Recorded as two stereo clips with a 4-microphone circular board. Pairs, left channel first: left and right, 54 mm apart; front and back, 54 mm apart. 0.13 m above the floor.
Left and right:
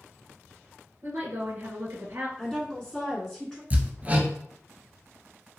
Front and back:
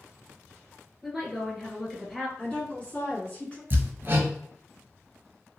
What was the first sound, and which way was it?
A woman speaking, 85° right.